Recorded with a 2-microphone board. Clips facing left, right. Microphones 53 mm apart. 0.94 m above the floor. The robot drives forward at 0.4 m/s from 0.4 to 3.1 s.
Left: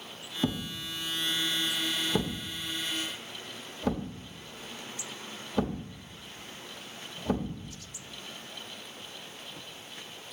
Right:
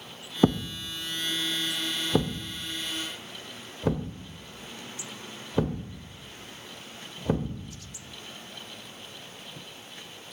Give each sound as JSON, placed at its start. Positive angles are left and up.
{"t": 0.4, "sound": "a thud", "side_deg": -40, "distance_m": 0.5}